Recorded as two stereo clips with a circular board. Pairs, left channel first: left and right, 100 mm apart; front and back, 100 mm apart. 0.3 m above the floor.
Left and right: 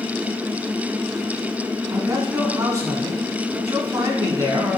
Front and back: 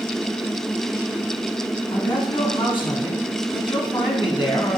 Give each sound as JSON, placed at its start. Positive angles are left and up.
{"t": 1.9, "sound": "a man speaking", "azimuth_deg": -35, "distance_m": 3.0}